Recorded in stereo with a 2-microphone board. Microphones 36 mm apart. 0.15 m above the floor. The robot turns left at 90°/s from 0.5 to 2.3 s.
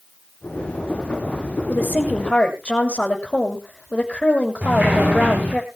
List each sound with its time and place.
1.7 s a woman speaking: 90° left, 6.5 m; by 5.6 s 35° left, 6.5 m
4.6 s a sliding door: 50° right (ahead or behind), 8 m